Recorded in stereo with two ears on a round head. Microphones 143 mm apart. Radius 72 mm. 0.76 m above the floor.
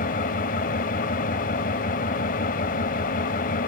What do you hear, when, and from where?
0.0 s an engine running: 55° left (ahead or behind), 0.8 m